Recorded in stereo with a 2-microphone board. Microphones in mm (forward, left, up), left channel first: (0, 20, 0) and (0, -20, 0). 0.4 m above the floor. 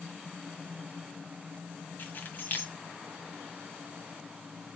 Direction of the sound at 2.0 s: 55° left (ahead or behind).